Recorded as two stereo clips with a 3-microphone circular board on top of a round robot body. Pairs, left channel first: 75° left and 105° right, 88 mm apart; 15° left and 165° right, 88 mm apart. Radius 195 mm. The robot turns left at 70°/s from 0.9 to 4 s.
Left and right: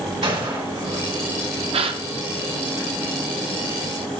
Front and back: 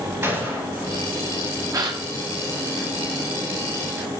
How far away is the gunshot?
About 4 m.